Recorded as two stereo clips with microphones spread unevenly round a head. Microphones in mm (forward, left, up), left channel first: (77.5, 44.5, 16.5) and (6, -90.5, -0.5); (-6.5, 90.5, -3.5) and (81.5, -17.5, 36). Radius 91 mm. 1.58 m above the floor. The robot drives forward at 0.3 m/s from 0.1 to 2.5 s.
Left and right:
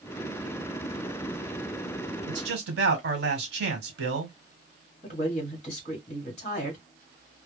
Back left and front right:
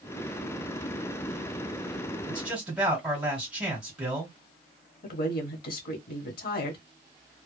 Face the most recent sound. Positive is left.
turn(degrees=120)